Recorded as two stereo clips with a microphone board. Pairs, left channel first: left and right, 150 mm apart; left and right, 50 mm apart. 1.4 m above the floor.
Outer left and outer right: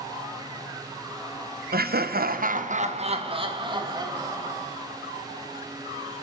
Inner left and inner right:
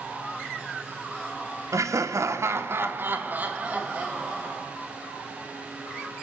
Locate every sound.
1.7 s laughter: 80° right, 0.9 m; by 4.6 s 20° right (ahead or behind), 2.5 m